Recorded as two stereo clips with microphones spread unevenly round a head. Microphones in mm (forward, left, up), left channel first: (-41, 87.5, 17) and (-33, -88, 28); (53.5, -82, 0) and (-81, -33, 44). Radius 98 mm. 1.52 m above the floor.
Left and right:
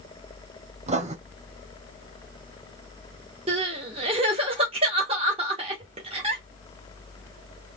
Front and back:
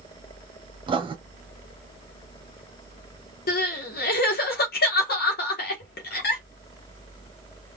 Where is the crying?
25° right, 0.9 m.